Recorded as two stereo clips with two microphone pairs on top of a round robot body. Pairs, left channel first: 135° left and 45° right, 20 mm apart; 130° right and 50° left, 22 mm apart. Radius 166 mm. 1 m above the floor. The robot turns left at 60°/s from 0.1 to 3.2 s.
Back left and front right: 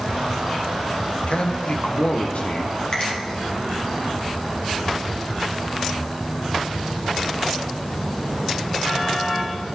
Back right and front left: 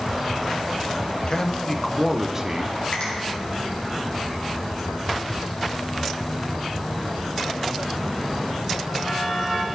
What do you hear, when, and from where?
1.3 s a man speaking: 170° left, 1.0 m; by 2.8 s 80° left, 1.0 m
2.9 s a finger snap: 170° right, 2.5 m; by 3.1 s 175° left, 2.5 m